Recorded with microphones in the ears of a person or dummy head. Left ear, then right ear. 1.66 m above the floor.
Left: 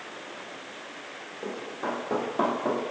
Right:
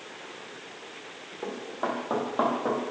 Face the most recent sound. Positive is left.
turn(degrees=-45)  # may be behind; listen again after turning